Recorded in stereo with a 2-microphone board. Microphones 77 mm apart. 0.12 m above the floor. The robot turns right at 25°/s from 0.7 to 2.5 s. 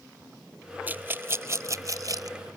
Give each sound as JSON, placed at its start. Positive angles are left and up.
{"t": 0.9, "sound": "a rattle", "side_deg": -25}